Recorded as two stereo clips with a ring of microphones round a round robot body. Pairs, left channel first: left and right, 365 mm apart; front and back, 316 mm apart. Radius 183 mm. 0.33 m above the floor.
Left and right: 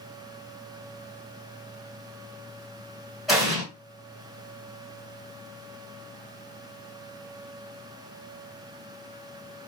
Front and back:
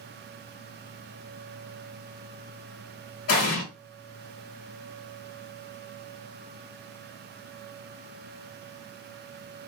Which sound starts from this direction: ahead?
An explosion, at 3.3 s.